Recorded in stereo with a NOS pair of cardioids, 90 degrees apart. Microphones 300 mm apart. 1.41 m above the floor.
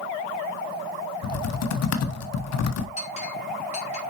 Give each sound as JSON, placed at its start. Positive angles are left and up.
{"t": 1.2, "sound": "typing on a keyboard", "azimuth_deg": 55, "distance_m": 1.1}
{"t": 3.0, "sound": "a clink", "azimuth_deg": 25, "distance_m": 2.5}